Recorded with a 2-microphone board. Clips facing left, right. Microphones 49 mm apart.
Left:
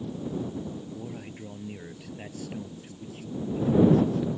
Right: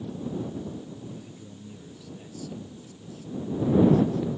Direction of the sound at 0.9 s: 50° left (ahead or behind).